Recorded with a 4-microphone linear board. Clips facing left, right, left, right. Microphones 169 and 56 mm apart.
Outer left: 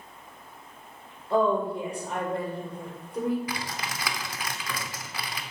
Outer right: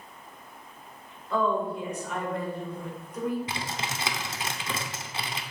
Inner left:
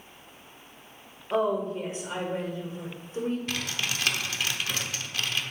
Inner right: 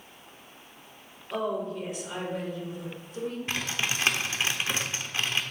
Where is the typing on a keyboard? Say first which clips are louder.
Even, inner right 1 dB; 25° right (ahead or behind), 0.7 m.